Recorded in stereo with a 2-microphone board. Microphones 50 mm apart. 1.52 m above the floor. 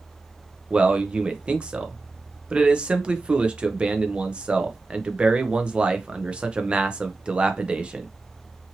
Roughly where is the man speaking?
Centre.